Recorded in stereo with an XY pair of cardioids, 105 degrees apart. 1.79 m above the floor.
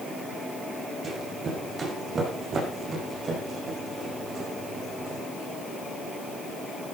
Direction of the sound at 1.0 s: 45° right.